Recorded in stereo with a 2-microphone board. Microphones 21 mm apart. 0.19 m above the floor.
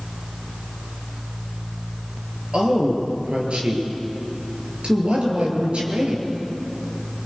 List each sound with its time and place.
2.5 s a woman speaking: 60° right (ahead or behind), 4.5 m